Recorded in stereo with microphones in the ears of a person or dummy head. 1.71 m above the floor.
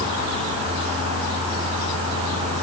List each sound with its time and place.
Only background noise.